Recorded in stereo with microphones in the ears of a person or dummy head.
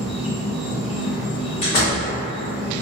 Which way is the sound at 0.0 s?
5° right (ahead or behind).